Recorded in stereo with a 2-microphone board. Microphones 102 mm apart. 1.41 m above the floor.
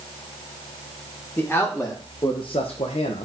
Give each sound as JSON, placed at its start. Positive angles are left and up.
{"t": 1.4, "sound": "a man speaking", "side_deg": 20, "distance_m": 1.7}